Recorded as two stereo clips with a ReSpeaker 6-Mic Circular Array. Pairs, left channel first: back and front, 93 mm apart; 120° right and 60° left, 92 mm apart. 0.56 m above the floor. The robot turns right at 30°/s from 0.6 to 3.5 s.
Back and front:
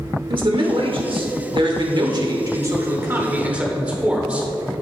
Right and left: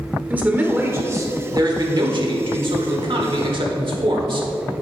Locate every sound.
0.3 s a man speaking: 10° right, 1.4 m; by 4.5 s 75° left, 1.4 m